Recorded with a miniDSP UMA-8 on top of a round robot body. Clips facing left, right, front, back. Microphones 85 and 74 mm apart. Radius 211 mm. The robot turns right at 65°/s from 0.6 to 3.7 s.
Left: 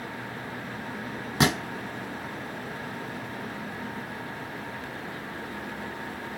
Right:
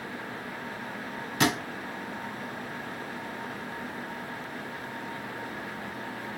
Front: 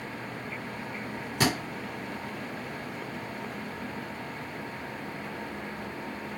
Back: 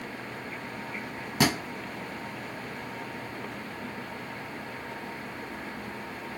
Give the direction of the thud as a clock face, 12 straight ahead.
8 o'clock.